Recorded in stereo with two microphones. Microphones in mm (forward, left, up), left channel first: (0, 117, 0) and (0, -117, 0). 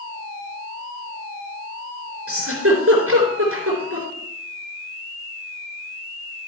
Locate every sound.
2.3 s a giggle: 70° right (ahead or behind), 3.5 m